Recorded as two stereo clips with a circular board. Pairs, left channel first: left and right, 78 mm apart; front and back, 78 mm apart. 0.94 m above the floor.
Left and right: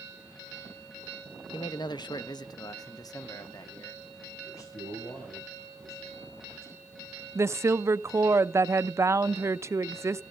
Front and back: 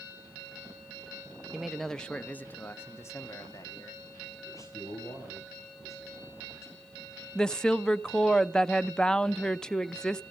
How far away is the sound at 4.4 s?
About 5 m.